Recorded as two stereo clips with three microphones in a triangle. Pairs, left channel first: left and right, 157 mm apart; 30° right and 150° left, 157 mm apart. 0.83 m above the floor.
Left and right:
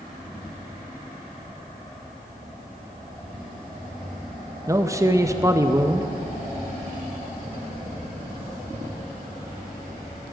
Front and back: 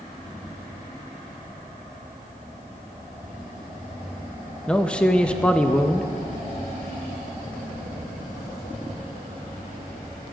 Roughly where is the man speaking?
Right.